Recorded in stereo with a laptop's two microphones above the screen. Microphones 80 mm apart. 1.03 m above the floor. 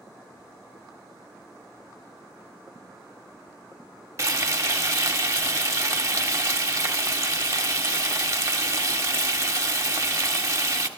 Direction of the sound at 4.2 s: 35° right (ahead or behind).